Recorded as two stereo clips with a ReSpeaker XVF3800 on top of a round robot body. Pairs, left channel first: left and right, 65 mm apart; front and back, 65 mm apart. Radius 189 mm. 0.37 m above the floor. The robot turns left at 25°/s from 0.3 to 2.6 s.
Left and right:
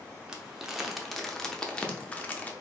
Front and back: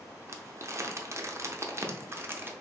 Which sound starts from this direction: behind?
Crumpling, at 0.3 s.